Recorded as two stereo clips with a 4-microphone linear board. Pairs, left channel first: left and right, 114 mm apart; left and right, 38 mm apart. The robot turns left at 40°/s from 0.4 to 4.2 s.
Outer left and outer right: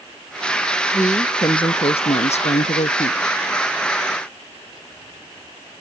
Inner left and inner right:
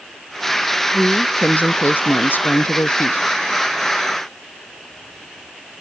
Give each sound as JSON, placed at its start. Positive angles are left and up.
{"t": 0.9, "sound": "a woman speaking", "azimuth_deg": 160}